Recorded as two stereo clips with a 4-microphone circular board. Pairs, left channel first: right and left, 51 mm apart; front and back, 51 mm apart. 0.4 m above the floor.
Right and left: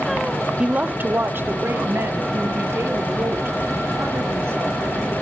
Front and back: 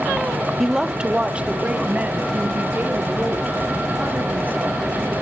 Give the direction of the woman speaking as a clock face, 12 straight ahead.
9 o'clock.